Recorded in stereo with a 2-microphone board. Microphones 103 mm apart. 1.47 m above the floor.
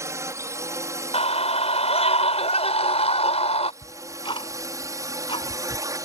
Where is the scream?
85° left.